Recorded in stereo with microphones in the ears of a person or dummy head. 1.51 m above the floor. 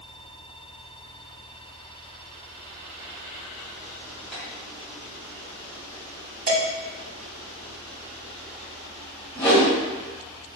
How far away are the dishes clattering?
About 1.4 m.